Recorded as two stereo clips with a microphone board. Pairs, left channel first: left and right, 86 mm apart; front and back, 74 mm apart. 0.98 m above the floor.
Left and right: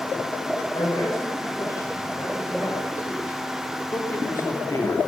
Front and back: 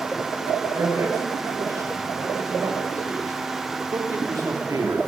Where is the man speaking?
135° left, 6 m; by 5.1 s 140° left, 2.5 m.